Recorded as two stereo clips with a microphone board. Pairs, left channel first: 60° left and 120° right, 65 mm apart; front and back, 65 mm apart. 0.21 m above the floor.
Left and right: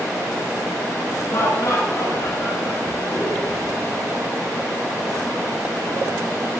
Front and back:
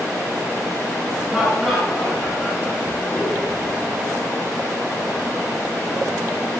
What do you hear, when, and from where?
1.3 s laughter: 100° left, 7.5 m; by 3.9 s 70° left, 7 m